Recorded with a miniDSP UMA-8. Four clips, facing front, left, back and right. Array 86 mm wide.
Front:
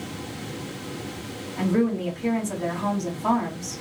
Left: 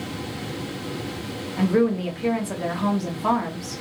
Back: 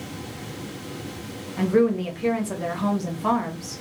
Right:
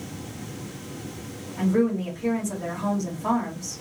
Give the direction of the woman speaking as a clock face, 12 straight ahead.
8 o'clock.